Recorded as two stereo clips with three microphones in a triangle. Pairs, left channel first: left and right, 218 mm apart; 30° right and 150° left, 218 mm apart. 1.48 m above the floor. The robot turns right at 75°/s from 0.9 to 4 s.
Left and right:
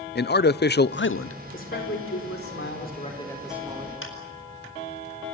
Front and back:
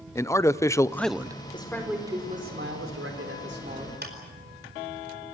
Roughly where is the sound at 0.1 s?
Ahead left.